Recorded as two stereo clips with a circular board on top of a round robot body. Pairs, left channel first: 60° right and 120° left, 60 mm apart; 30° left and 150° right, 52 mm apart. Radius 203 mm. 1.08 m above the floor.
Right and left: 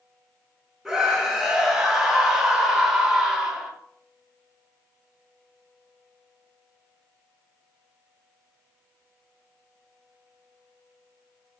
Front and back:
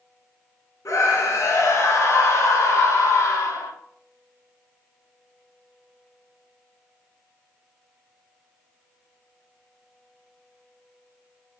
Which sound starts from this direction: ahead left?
A scream, at 0.8 s.